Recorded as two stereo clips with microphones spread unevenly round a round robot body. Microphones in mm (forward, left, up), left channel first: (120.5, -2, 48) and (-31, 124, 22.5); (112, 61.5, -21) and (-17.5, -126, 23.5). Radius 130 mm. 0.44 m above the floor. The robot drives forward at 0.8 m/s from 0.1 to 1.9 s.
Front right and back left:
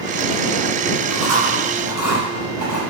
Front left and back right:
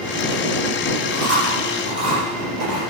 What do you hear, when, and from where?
1.1 s chewing: 165° right, 5.5 m